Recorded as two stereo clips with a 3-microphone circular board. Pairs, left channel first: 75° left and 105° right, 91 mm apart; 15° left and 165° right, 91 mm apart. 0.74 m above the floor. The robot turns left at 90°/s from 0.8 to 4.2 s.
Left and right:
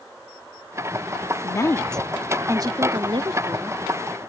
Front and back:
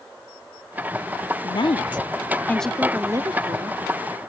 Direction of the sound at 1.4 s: 40° left.